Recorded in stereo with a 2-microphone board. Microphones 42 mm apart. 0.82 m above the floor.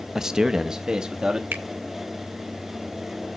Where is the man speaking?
15° right (ahead or behind), 0.6 m.